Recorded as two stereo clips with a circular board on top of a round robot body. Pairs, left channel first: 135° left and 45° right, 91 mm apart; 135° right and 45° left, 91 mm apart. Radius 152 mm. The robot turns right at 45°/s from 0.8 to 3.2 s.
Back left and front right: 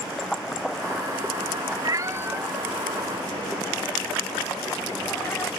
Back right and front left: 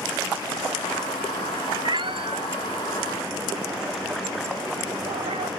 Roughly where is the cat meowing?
Ahead.